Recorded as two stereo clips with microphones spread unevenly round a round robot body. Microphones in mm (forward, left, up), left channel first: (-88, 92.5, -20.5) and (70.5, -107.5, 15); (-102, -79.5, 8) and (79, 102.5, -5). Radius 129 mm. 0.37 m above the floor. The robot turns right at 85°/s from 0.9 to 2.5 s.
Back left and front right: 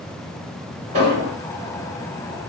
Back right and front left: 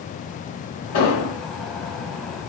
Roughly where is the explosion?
Behind right.